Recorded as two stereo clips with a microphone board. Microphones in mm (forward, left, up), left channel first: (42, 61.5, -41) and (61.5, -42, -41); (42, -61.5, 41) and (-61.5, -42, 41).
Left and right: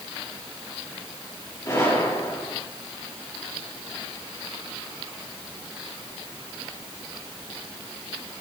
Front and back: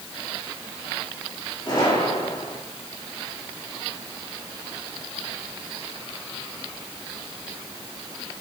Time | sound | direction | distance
1.6 | a gunshot | 35° left | 5.5 m